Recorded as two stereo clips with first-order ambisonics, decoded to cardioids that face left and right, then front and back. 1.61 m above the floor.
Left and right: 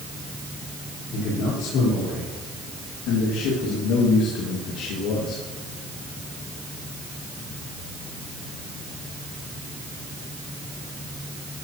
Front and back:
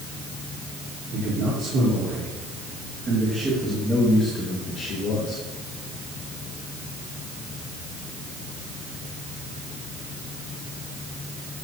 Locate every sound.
1.1 s a man speaking: 130° left, 5 m; by 5.4 s 45° left, 2.5 m